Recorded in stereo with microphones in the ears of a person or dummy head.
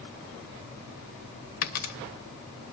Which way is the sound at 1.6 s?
50° left (ahead or behind).